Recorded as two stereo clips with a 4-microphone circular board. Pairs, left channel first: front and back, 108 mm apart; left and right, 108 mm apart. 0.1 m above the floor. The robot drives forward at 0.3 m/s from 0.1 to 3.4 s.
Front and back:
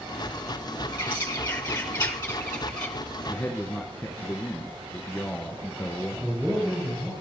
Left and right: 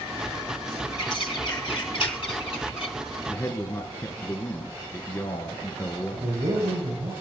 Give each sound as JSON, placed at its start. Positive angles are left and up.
{"t": 0.9, "sound": "a bird", "azimuth_deg": 60, "distance_m": 1.9}
{"t": 3.3, "sound": "a man speaking", "azimuth_deg": 60, "distance_m": 1.3}
{"t": 6.1, "sound": "a man speaking", "azimuth_deg": -100, "distance_m": 7.0}